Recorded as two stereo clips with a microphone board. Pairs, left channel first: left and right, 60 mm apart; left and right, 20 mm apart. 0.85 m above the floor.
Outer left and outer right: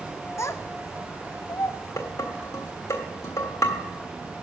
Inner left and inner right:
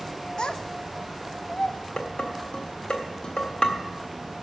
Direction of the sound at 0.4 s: 50° left (ahead or behind).